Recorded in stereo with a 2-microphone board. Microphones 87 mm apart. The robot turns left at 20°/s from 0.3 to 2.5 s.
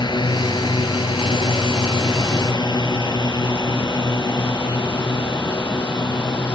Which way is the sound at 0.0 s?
55° left (ahead or behind).